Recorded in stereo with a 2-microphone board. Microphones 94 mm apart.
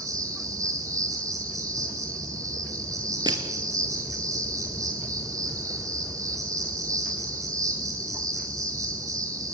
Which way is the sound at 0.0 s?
35° right (ahead or behind).